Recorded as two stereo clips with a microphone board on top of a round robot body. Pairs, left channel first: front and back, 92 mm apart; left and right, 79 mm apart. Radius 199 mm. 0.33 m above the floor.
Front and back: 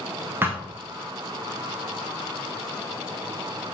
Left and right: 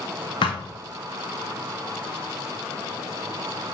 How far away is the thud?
About 0.8 m.